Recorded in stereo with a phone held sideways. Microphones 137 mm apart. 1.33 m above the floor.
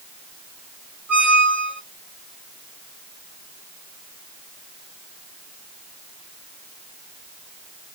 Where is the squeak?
10° right (ahead or behind), 1.0 m.